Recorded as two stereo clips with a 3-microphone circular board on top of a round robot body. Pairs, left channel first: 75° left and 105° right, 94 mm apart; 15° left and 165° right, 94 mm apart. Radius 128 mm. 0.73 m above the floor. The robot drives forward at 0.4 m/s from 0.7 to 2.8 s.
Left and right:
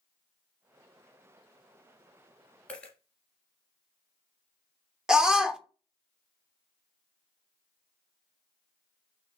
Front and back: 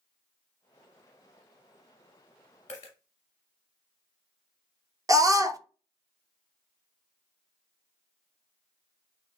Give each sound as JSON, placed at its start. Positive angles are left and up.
{"t": 2.7, "sound": "a dropped coin", "azimuth_deg": 0, "distance_m": 0.6}
{"t": 5.1, "sound": "a scream", "azimuth_deg": 175, "distance_m": 0.7}